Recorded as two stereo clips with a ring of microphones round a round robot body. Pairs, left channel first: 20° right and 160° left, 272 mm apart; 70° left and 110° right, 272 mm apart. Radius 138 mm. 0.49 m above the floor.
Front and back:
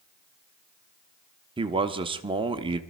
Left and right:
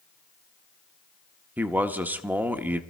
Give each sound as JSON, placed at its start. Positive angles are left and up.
{"t": 1.6, "sound": "a man speaking", "azimuth_deg": 175, "distance_m": 0.9}